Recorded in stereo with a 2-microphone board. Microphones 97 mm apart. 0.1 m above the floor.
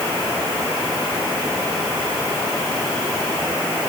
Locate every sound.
Only background noise.